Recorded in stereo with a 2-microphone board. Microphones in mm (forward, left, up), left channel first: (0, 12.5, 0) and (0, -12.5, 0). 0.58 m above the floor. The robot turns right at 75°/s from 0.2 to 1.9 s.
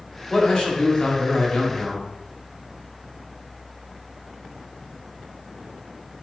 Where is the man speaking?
25° left, 1.5 m; by 2.1 s 145° left, 1.5 m.